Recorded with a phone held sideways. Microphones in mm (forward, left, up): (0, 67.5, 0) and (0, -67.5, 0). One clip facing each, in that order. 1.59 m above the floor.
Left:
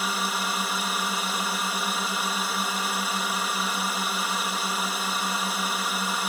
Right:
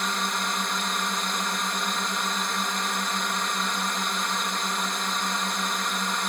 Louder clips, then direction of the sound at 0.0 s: Even; 5° left (ahead or behind).